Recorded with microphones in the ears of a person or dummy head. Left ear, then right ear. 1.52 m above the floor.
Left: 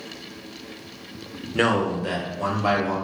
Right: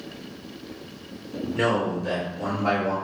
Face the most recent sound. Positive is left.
turn(degrees=70)  # may be behind; listen again after turning